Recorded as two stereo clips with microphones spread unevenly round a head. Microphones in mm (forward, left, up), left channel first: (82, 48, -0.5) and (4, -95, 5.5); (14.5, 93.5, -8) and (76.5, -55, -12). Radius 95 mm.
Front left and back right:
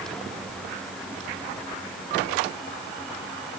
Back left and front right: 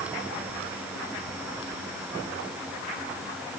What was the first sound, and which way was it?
Only background noise.